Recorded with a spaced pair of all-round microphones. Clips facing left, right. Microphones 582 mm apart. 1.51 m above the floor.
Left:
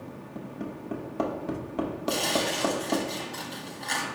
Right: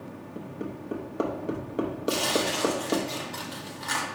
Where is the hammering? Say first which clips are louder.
Right 1 dB; 20° left (ahead or behind), 0.8 m.